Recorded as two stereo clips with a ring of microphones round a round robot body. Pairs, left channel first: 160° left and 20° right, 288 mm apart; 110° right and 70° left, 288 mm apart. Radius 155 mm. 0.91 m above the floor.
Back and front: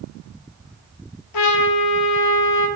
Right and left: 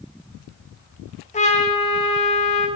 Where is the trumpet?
Straight behind, 0.7 m.